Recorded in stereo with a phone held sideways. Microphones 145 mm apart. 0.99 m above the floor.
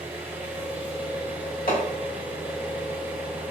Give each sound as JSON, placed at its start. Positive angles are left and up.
{"t": 0.0, "sound": "an engine running", "side_deg": -10, "distance_m": 0.8}
{"t": 1.7, "sound": "hammering", "side_deg": 80, "distance_m": 1.2}